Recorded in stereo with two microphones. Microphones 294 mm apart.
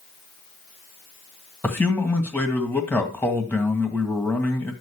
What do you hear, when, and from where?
1.6 s a man speaking: 5° left (ahead or behind), 1.8 m